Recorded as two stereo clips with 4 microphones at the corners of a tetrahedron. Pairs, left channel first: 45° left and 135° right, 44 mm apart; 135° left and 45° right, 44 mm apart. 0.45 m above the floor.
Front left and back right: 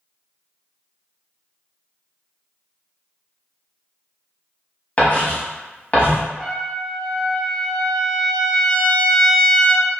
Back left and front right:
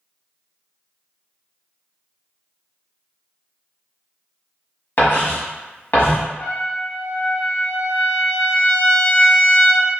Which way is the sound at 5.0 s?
100° left.